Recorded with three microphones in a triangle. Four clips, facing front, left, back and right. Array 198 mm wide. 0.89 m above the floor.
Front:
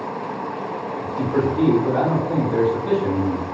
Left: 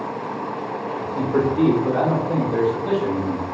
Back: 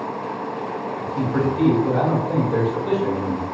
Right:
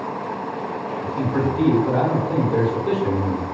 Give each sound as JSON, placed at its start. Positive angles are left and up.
{"t": 1.0, "sound": "a man speaking", "azimuth_deg": 25, "distance_m": 1.7}